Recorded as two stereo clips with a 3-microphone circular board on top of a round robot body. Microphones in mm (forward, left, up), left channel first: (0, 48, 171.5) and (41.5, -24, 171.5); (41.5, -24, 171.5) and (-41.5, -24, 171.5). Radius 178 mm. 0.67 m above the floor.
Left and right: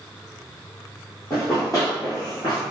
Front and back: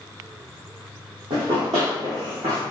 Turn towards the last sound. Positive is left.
turn(degrees=155)